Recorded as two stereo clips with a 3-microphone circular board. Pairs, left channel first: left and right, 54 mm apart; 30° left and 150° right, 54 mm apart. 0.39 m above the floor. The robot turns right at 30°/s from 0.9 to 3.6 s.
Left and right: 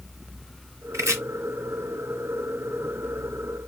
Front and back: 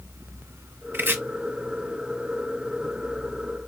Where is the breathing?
No breathing in this recording.